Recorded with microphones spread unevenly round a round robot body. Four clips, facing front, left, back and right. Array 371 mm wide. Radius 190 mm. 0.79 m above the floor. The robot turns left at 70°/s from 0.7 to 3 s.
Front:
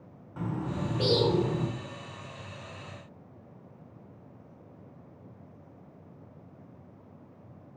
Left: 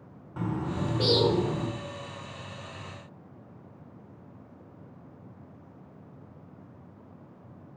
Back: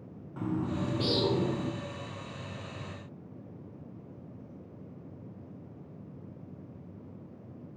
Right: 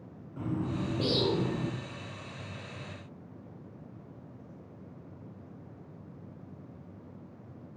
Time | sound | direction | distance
0.4 | a bird | 85° left | 1.6 m